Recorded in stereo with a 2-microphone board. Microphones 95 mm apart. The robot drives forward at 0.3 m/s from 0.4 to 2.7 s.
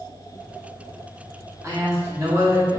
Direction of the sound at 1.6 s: 30° right (ahead or behind).